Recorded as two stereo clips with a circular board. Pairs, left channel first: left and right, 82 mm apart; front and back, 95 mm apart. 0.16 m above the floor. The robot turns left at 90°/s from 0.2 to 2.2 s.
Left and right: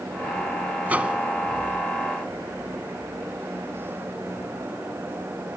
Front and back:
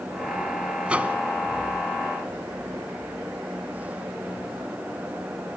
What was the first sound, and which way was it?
A microwave, 120° right.